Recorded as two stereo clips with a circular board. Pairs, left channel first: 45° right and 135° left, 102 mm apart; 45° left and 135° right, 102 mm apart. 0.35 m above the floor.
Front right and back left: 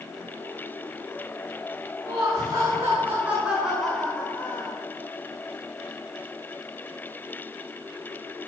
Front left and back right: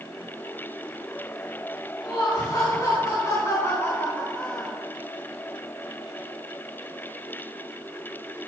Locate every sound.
2.0 s laughter: 90° left, 2.5 m; by 4.8 s 35° right, 1.6 m